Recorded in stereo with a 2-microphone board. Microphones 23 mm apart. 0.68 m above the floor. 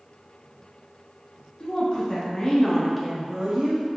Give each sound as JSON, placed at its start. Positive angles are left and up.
{"t": 1.6, "sound": "a woman speaking", "side_deg": 50, "distance_m": 1.6}